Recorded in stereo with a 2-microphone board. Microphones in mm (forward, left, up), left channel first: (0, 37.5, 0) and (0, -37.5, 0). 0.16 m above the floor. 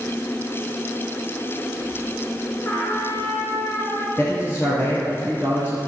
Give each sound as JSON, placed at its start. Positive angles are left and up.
{"t": 2.6, "sound": "a trumpet", "side_deg": 30, "distance_m": 2.5}
{"t": 4.2, "sound": "a man speaking", "side_deg": 35, "distance_m": 2.5}